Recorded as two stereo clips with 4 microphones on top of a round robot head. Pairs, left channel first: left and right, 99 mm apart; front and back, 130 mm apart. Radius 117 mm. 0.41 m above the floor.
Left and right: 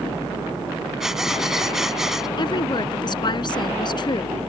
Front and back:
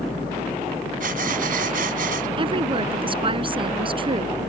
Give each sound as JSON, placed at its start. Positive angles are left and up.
{"t": 1.0, "sound": "breathing", "azimuth_deg": -175}
{"t": 2.4, "sound": "a woman speaking", "azimuth_deg": 130}